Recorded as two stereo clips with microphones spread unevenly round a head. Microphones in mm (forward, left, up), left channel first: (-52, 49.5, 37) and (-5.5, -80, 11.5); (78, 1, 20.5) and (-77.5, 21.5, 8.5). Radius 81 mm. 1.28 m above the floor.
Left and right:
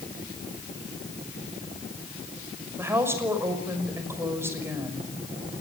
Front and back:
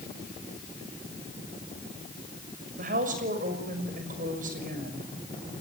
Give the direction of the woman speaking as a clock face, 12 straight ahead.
5 o'clock.